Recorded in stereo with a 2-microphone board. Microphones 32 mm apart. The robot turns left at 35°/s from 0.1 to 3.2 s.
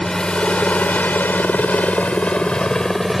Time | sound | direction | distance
0.0 | a helicopter | 20° left (ahead or behind) | ?